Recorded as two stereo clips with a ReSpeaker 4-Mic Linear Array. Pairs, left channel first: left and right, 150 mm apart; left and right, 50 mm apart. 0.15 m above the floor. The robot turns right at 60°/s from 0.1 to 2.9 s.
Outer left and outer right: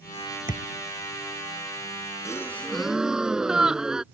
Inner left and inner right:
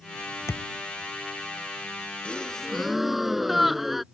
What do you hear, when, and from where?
0.5 s a thud: 65° left (ahead or behind); by 0.7 s 50° left (ahead or behind)
2.2 s a gasp: 145° left; by 4.0 s 175° right